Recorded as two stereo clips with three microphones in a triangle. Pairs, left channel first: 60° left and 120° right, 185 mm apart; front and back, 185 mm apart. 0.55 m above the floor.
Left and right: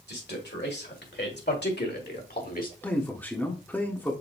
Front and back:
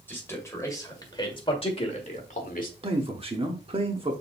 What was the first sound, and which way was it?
A man speaking, 80° left.